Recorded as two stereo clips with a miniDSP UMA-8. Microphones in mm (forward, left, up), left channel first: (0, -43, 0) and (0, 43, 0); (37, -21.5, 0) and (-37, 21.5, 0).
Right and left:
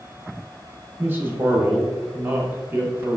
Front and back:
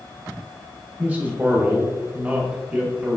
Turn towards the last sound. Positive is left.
turn(degrees=110)